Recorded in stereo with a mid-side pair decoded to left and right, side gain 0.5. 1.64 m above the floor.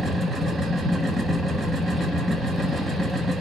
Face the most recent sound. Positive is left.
turn(degrees=-15)